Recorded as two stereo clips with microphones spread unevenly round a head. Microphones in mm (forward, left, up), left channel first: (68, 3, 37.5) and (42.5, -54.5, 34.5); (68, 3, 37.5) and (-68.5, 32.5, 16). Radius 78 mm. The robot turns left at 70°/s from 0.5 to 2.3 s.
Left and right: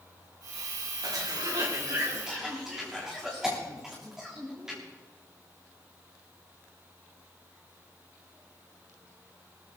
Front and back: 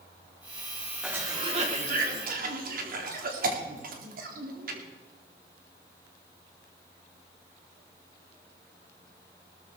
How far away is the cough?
About 3 m.